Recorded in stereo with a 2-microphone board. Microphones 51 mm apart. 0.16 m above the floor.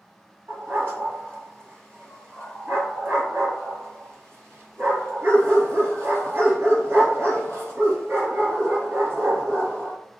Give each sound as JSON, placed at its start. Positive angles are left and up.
{"t": 0.5, "sound": "a dog barking", "side_deg": -50, "distance_m": 1.5}